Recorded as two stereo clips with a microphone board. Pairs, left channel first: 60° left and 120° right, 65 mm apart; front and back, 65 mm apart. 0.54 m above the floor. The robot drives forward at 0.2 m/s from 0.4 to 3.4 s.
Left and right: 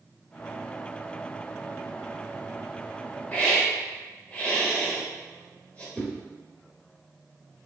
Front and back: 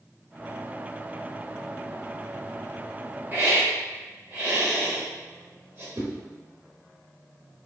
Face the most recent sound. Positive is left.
turn(degrees=135)